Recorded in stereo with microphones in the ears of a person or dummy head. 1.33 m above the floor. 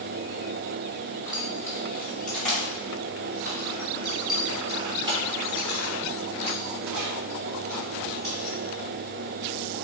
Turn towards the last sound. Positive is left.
turn(degrees=-45)  # may be behind; listen again after turning